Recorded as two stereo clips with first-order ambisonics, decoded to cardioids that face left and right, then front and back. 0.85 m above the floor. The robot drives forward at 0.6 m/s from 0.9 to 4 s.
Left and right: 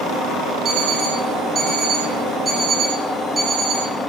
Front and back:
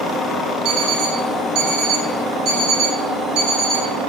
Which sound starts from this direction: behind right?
An alarm clock, at 0.7 s.